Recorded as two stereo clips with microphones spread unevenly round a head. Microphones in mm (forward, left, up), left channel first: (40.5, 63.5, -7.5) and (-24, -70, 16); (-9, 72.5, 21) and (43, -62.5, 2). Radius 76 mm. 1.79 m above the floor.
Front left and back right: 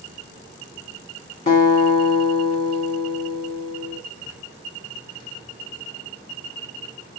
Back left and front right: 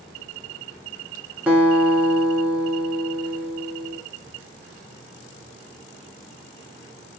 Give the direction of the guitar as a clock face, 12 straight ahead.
12 o'clock.